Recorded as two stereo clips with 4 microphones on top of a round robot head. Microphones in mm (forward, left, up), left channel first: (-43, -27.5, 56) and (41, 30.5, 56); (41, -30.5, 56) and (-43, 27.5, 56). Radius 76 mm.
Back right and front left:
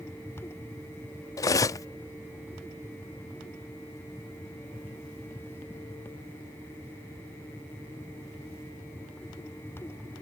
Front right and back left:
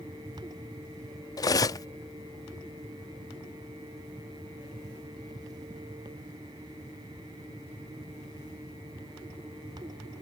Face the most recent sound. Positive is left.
turn(degrees=-90)